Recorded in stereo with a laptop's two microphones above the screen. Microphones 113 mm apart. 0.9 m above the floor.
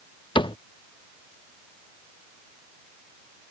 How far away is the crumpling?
I don't hear crumpling.